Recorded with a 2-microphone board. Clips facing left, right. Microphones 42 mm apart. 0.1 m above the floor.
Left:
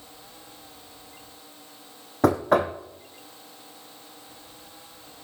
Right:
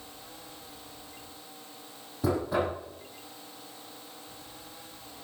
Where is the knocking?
65° left (ahead or behind), 2.5 m.